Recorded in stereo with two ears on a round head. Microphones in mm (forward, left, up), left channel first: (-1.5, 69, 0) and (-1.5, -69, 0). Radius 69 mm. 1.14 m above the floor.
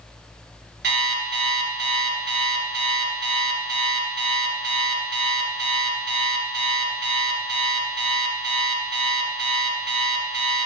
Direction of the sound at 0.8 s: 80° right.